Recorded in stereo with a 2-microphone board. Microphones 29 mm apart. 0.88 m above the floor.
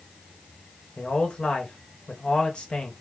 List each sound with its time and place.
1.0 s a man speaking: 30° left (ahead or behind), 1.1 m